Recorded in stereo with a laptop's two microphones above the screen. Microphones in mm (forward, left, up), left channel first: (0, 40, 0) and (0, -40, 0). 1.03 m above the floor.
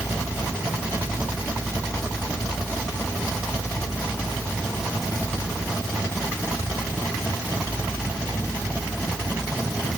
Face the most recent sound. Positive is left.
No sound to turn to.